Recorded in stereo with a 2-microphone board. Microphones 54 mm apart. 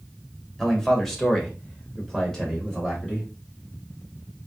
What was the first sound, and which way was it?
A man speaking, 5° left (ahead or behind).